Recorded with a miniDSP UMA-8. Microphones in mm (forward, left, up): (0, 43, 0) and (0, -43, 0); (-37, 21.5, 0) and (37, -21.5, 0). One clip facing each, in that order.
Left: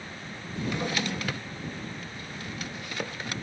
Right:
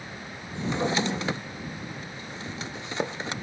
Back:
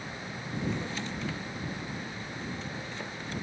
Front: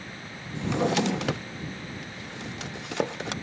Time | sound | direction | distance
0.6 | a drawer | 25° right | ?